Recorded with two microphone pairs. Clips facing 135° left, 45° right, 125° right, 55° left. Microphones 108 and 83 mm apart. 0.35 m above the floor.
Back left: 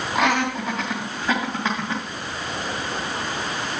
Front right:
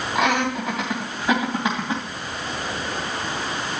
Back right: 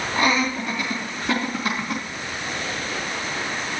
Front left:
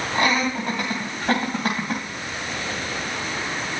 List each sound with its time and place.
0.1 s laughter: 50° left, 2.5 m; by 2.0 s 20° left, 2.5 m